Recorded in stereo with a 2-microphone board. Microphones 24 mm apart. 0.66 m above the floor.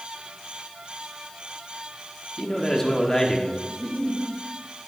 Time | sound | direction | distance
2.4 | a man speaking | 20° left (ahead or behind) | 1.4 m
3.7 | a giggle | 25° left (ahead or behind) | 3 m